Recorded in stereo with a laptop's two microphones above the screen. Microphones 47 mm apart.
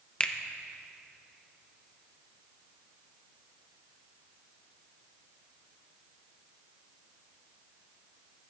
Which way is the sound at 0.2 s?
25° left (ahead or behind).